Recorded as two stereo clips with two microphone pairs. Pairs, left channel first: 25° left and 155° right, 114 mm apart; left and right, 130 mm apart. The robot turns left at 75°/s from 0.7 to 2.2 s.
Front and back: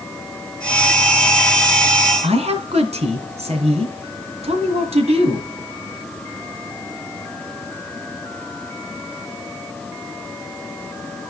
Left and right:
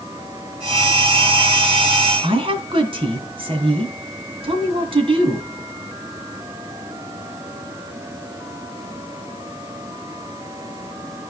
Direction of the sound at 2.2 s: 135° right.